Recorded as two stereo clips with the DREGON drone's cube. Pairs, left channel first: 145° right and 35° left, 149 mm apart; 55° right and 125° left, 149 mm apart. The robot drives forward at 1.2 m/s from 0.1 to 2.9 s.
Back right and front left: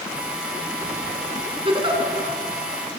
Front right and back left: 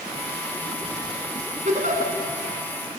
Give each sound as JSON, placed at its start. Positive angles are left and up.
{"t": 1.6, "sound": "a giggle", "azimuth_deg": 85, "distance_m": 4.5}